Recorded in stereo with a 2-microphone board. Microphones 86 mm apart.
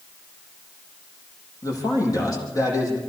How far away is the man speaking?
About 10 m.